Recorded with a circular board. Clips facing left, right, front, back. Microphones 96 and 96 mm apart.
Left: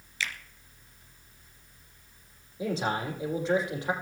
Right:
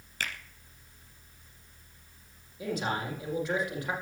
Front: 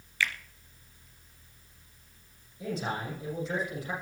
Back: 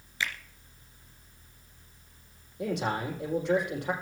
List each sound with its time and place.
0.2 s a finger snap: 115° right, 1.8 m
2.6 s a man speaking: 155° left, 7 m